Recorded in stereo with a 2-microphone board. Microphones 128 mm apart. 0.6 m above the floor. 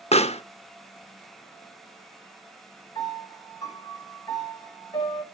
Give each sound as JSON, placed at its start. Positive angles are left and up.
{"t": 0.1, "sound": "a pop", "side_deg": 55, "distance_m": 0.6}
{"t": 3.0, "sound": "a piano", "side_deg": 35, "distance_m": 3.0}